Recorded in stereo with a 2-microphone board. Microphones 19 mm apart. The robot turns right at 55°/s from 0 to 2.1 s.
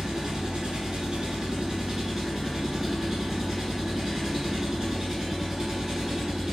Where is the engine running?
135° right, 1.6 m; by 6.5 s 20° right, 1.6 m.